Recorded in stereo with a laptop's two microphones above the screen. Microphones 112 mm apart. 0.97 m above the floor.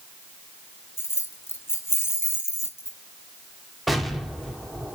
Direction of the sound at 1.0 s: 20° left (ahead or behind).